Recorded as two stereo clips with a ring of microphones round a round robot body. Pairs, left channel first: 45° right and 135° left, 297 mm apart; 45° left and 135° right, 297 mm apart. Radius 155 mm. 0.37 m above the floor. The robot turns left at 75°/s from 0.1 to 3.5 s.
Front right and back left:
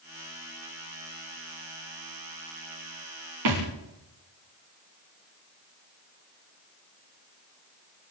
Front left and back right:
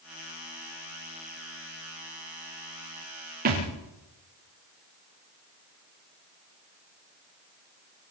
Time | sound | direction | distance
3.5 | a thud | 165° left | 8 m